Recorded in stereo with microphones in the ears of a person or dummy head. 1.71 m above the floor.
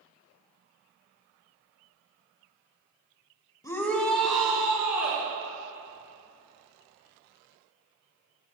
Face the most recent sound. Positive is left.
turn(degrees=-10)  # may be behind; listen again after turning